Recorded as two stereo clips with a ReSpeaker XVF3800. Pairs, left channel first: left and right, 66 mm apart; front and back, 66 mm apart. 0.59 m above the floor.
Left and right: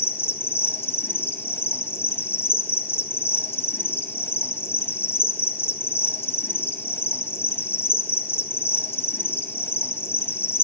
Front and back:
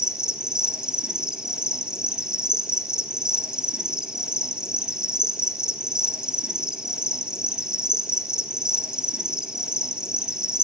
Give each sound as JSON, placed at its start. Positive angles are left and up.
{"t": 0.0, "sound": "an insect", "azimuth_deg": 110, "distance_m": 0.8}